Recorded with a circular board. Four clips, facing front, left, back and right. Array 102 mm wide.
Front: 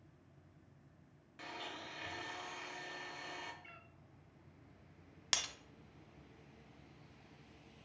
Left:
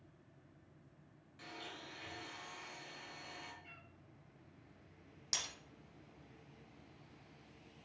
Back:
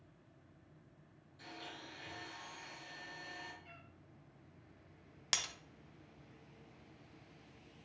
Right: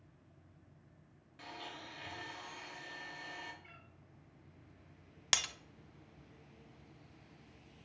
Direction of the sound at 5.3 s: 90° right.